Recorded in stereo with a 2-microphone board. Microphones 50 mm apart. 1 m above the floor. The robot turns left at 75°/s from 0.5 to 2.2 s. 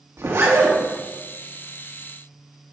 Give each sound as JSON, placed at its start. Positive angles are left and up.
{"t": 0.2, "sound": "a zipper", "side_deg": -65, "distance_m": 1.9}